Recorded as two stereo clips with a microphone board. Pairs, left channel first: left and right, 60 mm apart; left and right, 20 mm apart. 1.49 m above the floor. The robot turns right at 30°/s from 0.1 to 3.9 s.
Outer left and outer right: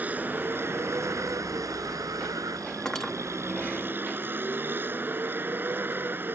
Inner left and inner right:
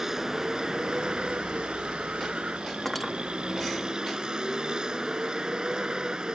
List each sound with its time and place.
0.0 s a vehicle: 150° right; by 6.3 s 35° right
2.9 s cutlery clinking: 10° left (ahead or behind); by 3.2 s 5° left (ahead or behind)